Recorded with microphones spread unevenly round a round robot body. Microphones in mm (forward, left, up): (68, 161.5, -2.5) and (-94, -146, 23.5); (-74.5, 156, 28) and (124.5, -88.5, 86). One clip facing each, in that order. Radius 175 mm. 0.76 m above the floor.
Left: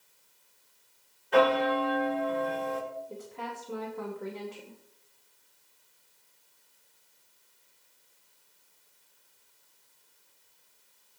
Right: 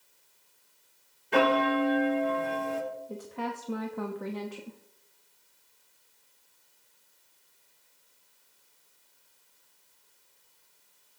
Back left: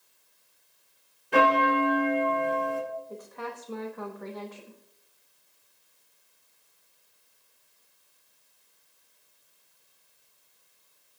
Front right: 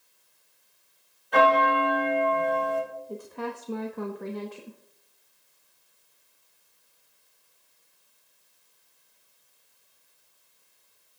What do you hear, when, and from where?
1.3 s a bell: 175° right, 1.9 m
3.1 s a woman speaking: 110° right, 1.0 m